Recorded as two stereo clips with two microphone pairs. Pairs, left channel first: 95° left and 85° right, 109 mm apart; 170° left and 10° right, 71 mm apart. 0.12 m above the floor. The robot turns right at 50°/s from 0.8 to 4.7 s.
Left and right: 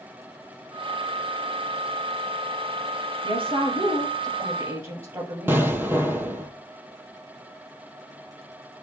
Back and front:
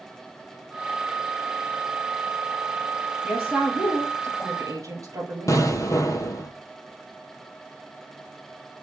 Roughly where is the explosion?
Behind right.